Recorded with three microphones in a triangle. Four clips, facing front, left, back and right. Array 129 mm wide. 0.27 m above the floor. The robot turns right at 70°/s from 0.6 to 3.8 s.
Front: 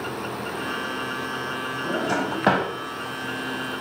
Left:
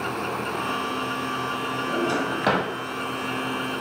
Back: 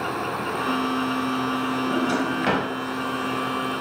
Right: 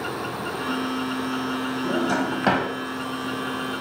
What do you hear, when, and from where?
1.9 s a drawer: 55° right, 0.7 m; by 2.7 s 5° left, 0.7 m